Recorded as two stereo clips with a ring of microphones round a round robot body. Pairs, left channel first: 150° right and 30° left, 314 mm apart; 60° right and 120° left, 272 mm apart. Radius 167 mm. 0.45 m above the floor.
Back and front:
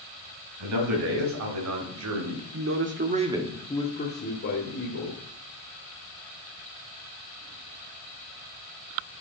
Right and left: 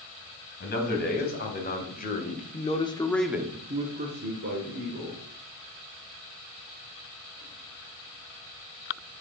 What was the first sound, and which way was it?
A man speaking, 5° right.